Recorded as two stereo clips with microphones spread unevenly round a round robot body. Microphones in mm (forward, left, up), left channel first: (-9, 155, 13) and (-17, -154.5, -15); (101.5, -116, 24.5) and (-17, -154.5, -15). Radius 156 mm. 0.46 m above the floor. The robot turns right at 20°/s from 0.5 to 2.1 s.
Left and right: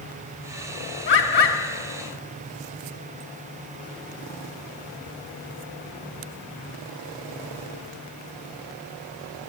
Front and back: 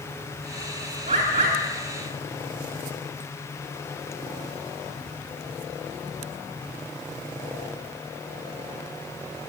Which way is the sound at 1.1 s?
145° left.